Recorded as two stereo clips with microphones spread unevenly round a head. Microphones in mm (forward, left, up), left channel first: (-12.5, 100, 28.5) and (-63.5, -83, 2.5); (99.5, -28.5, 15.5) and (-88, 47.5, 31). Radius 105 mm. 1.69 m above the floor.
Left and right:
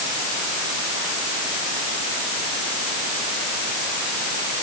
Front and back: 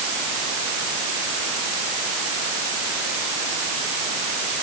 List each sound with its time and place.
Only background noise.